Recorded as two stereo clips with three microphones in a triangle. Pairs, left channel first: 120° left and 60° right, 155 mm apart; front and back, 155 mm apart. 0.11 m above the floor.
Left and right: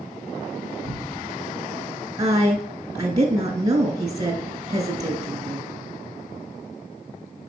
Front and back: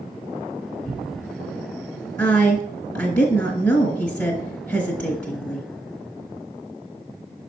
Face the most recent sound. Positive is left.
turn(degrees=-50)